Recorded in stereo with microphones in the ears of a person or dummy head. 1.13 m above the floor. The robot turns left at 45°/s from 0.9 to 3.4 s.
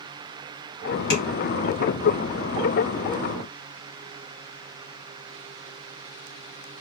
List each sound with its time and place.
1.1 s tapping: 60° left (ahead or behind), 1.7 m; by 1.2 s 65° left (ahead or behind), 1.7 m